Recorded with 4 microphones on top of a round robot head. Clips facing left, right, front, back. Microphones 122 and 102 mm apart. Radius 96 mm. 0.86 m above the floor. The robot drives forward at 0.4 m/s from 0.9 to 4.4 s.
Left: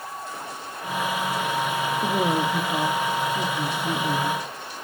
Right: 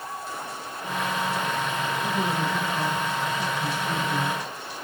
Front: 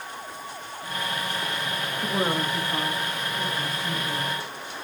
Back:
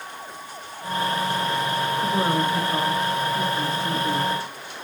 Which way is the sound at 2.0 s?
90° left.